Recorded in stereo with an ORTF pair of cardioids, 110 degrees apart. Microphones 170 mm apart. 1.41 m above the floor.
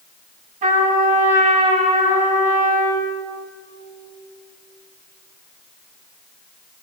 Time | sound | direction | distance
0.6 | a trumpet | 50° right | 7.5 m